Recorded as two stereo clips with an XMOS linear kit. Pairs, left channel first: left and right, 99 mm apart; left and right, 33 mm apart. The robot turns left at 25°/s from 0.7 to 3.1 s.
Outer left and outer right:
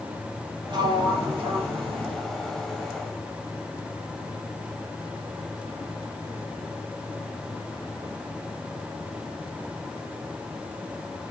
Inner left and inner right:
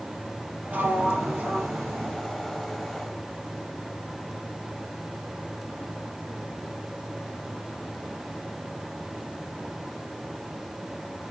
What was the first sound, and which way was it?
A sliding door, 65° right.